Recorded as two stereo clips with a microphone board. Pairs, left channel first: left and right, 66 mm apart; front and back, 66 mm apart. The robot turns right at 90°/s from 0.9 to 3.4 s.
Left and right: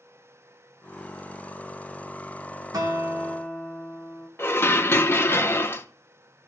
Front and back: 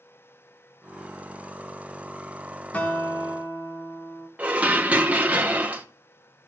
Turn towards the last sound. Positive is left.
turn(degrees=125)